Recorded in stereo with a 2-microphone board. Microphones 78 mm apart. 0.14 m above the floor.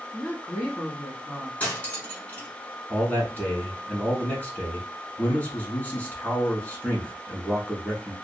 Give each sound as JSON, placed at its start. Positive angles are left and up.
{"t": 0.1, "sound": "a woman speaking", "side_deg": 20, "distance_m": 1.1}
{"t": 1.6, "sound": "cutlery clinking", "side_deg": 20, "distance_m": 0.9}
{"t": 2.9, "sound": "a man speaking", "side_deg": 20, "distance_m": 1.1}